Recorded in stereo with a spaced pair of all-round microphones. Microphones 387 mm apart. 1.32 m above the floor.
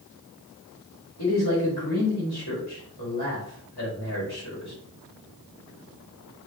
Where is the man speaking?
75° left (ahead or behind), 2.5 m.